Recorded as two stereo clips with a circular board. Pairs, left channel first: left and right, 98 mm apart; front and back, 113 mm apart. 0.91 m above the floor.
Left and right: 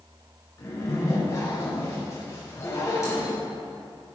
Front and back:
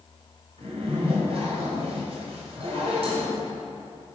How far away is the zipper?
About 5 m.